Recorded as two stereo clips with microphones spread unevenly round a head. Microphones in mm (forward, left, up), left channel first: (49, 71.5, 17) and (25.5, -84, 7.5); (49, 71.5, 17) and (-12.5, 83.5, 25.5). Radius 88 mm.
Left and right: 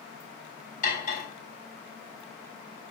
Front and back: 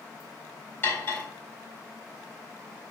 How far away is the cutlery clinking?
About 3.5 m.